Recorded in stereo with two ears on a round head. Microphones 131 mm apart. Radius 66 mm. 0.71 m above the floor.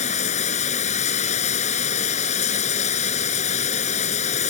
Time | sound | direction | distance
0.0 | running water | 55° left (ahead or behind) | ?